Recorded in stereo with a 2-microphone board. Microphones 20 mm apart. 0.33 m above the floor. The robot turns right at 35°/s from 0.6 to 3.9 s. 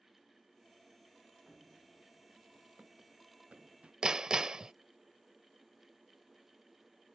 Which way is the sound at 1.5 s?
15° left (ahead or behind).